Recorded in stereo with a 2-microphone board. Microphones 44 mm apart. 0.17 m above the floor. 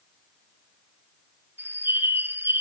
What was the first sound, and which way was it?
A bird, 55° right (ahead or behind).